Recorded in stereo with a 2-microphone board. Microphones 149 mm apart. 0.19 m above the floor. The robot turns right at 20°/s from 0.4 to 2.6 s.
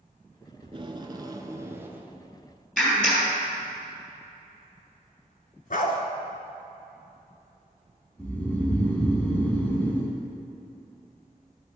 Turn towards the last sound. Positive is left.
turn(degrees=10)  # may be behind; listen again after turning